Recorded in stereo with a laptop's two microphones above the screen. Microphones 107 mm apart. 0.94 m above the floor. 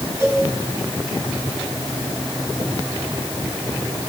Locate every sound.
0.2 s a cowbell: 25° right (ahead or behind), 6 m